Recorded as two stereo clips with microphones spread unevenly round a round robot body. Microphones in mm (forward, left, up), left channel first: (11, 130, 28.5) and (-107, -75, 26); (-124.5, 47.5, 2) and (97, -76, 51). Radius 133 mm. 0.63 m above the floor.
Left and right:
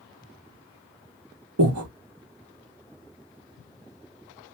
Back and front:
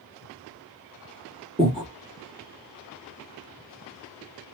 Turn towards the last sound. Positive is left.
turn(degrees=-95)